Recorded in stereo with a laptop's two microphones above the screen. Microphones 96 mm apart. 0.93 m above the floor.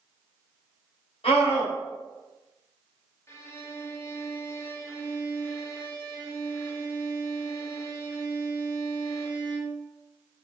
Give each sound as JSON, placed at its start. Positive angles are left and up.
{"t": 1.2, "sound": "a scream", "side_deg": 85, "distance_m": 3.5}
{"t": 3.3, "sound": "a violin", "side_deg": 30, "distance_m": 1.1}